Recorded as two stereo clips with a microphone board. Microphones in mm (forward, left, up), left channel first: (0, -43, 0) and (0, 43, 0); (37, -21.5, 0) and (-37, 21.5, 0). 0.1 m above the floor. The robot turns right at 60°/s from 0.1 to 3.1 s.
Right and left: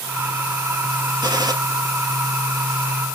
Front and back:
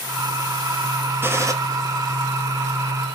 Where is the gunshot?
95° left, 2 m; by 1.5 s 110° left, 2 m.